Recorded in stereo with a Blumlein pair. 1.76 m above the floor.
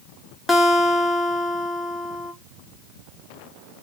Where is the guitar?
10° left, 0.8 m.